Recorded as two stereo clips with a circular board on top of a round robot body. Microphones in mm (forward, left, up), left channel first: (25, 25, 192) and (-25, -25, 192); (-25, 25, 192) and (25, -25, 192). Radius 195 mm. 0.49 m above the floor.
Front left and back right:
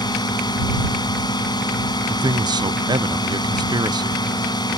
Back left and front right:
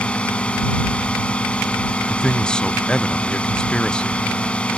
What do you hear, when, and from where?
0.0 s a drone: 60° left
2.1 s a man speaking: 145° right